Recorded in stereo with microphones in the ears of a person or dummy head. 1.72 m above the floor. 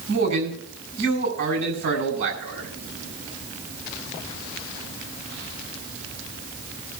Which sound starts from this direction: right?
A man speaking, at 0.1 s.